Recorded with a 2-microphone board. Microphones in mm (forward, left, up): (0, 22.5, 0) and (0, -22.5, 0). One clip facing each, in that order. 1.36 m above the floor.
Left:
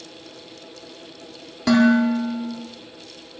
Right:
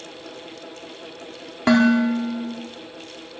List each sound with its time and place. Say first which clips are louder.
1.7 s dishes clattering: even; 35° right (ahead or behind), 1.9 m